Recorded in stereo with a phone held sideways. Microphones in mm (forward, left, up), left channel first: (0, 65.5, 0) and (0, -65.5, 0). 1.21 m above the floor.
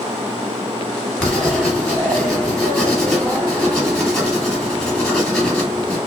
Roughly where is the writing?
Centre.